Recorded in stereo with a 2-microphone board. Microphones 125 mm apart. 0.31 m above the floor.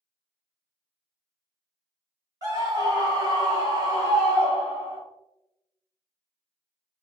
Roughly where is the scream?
Right.